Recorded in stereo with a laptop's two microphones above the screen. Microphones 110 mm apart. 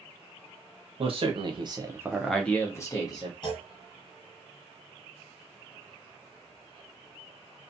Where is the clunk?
40° left (ahead or behind), 1.2 m.